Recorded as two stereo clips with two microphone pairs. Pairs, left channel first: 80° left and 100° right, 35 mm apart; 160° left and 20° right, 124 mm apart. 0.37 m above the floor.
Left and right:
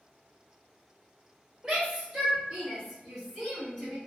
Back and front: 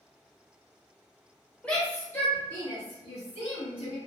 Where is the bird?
I don't hear a bird.